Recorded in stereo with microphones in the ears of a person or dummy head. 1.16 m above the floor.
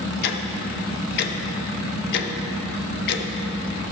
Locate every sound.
0.2 s ticking: 55° left (ahead or behind), 0.9 m